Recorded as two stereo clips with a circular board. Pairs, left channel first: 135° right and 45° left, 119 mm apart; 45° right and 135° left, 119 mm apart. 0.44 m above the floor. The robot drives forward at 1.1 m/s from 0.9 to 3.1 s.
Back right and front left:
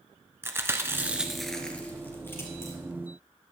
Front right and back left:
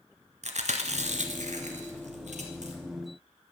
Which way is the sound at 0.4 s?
115° left.